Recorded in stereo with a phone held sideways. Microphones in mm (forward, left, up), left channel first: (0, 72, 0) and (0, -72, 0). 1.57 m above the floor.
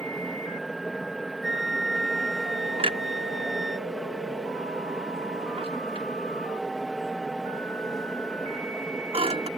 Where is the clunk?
45° right (ahead or behind).